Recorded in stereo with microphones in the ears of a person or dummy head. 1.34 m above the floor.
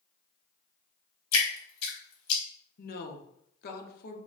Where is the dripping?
70° left (ahead or behind), 1.0 m.